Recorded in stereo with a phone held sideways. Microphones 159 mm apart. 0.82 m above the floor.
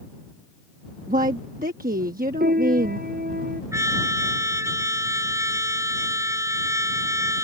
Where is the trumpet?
20° right (ahead or behind).